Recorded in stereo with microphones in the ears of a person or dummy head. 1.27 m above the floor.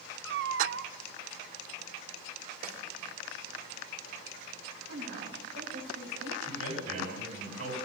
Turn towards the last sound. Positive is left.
turn(degrees=-90)